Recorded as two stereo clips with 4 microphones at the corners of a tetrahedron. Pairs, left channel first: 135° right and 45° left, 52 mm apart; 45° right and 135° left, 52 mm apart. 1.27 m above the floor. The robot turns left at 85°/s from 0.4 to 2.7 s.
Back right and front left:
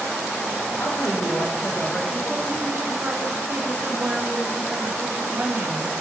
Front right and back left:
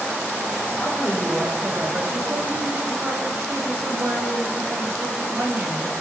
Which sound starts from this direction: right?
A woman speaking, at 0.8 s.